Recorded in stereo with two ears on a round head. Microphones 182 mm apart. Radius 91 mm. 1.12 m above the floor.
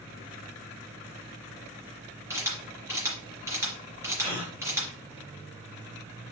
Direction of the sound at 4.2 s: 25° right (ahead or behind).